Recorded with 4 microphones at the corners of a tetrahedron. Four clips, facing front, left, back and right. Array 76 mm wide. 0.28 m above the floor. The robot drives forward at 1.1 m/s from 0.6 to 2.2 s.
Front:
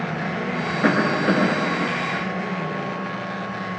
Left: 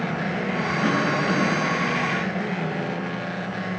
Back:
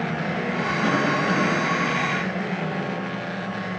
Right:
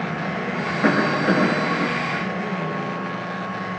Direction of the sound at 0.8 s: 40° right.